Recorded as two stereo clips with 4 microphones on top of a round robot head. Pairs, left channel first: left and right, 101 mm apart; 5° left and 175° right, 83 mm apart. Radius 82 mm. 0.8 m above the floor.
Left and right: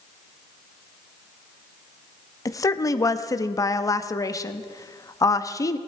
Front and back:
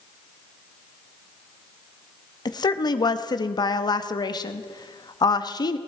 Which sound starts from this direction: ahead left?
A woman speaking, at 2.5 s.